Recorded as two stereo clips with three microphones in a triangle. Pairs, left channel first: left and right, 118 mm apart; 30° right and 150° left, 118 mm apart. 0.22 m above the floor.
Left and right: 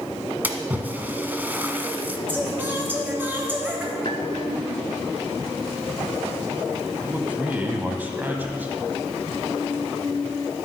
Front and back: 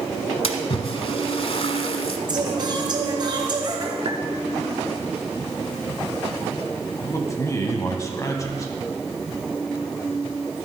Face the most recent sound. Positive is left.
turn(degrees=-30)